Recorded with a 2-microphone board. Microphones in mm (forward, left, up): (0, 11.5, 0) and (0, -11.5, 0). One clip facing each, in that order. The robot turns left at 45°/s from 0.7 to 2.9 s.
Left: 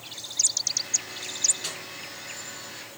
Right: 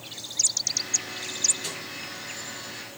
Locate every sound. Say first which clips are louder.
1.6 s a snare drum: even; 15° left (ahead or behind), 4 m; by 1.8 s 25° left (ahead or behind), 4 m